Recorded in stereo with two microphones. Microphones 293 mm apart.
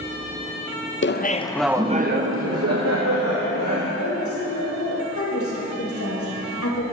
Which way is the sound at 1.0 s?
40° left (ahead or behind).